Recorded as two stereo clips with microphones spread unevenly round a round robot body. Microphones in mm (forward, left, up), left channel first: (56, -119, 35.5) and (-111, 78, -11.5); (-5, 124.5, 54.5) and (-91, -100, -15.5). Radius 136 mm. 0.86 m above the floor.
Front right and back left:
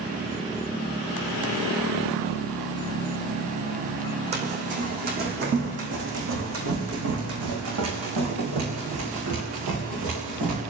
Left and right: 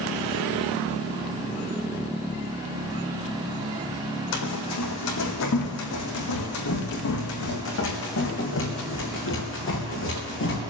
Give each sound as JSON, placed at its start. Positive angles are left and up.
{"t": 4.3, "sound": "running footsteps", "azimuth_deg": 60, "distance_m": 3.0}